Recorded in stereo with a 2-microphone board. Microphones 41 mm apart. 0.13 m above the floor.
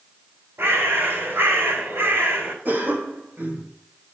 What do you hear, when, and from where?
0.6 s a bird: 80° right, 4.5 m
2.6 s a cough: 50° right (ahead or behind), 4.5 m